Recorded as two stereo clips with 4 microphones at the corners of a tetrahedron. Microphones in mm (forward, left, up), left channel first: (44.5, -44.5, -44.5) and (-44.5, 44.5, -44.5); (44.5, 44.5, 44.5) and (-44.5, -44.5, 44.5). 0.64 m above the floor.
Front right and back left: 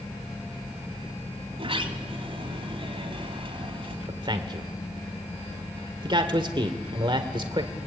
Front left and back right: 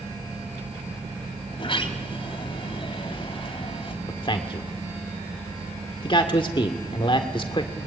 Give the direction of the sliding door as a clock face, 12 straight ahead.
9 o'clock.